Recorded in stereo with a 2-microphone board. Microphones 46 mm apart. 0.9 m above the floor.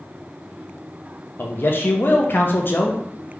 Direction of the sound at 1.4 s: 50° left (ahead or behind).